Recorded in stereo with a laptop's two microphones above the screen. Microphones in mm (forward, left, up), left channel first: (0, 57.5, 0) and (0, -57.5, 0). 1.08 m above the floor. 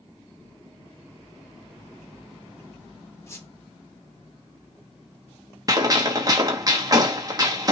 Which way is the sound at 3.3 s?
25° left (ahead or behind).